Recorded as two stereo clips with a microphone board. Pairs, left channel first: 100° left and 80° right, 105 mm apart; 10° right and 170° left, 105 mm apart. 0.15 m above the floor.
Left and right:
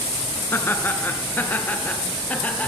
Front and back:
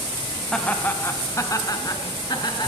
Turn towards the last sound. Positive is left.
turn(degrees=25)